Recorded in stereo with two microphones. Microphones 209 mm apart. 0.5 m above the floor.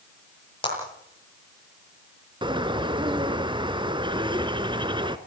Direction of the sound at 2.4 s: 20° right (ahead or behind).